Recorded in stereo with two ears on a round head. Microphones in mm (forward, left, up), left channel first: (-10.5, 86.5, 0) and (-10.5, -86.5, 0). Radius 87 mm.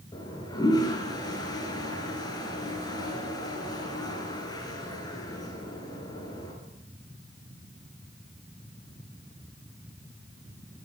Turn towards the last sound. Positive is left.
turn(degrees=20)  # may be behind; listen again after turning